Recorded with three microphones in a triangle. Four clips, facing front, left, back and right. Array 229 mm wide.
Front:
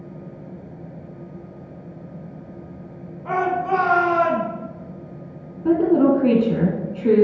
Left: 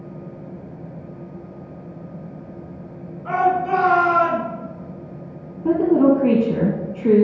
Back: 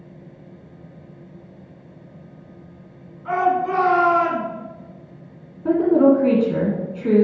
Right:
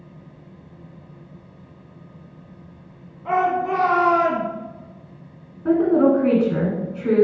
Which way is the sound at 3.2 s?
30° right.